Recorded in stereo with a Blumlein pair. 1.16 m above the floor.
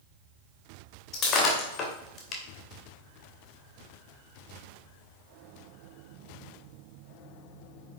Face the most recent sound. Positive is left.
turn(degrees=30)